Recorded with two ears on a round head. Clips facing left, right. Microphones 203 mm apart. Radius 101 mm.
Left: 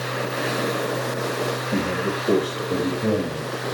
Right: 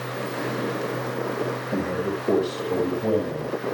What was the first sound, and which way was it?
A man speaking, 20° left (ahead or behind).